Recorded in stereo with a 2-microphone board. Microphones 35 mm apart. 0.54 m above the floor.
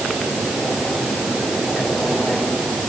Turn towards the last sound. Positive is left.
No sound to turn to.